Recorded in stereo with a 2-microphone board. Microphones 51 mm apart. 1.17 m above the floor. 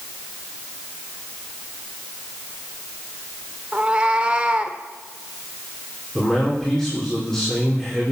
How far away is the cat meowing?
About 1.3 m.